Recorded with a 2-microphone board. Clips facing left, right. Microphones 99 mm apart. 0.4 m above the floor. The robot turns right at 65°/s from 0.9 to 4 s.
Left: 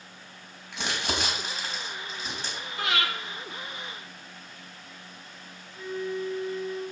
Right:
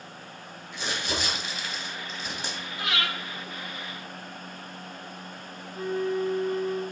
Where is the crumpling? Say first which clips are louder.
Left 1 dB; 70° left (ahead or behind), 3 m; by 2.6 s 20° right (ahead or behind), 3 m.